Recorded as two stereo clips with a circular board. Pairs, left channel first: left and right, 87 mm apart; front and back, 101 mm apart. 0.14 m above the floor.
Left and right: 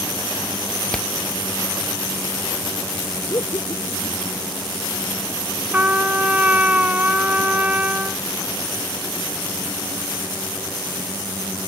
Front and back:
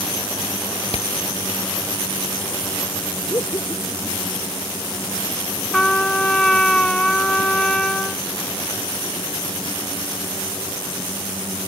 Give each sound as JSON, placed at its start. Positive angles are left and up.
{"t": 0.9, "sound": "hammering", "azimuth_deg": 10}
{"t": 3.3, "sound": "laughter", "azimuth_deg": 55}
{"t": 5.7, "sound": "a trumpet", "azimuth_deg": -70}